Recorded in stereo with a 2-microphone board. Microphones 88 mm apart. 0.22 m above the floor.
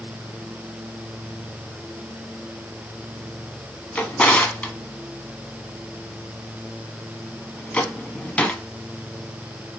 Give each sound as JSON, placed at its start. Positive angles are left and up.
{"t": 4.0, "sound": "a drawer", "side_deg": 15, "distance_m": 0.6}